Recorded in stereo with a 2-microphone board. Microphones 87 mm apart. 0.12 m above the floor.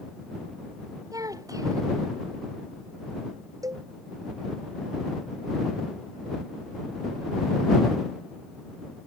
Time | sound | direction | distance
1.1 | a child speaking | 40° right (ahead or behind) | ?
3.6 | a cowbell | 45° right (ahead or behind) | ?